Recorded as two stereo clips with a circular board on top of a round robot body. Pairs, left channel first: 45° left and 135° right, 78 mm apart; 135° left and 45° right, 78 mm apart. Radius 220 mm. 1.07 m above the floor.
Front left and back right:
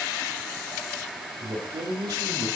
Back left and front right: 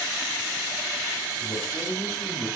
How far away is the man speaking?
About 9.5 m.